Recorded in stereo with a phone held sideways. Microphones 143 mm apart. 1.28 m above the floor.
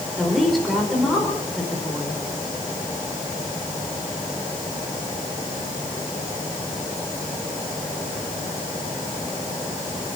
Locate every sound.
0.2 s a woman speaking: centre (ahead or behind), 4.5 m